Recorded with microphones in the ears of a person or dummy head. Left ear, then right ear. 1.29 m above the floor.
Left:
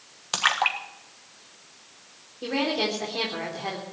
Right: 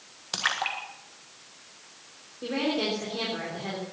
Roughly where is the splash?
Left.